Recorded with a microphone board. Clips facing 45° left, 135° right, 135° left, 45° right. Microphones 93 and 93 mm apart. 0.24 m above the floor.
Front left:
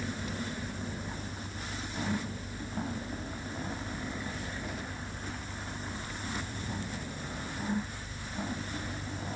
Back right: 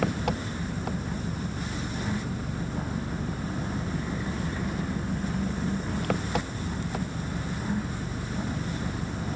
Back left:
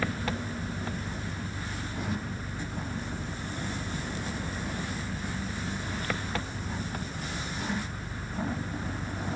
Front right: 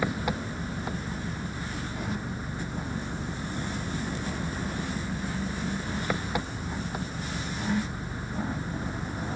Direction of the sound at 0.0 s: 120° right.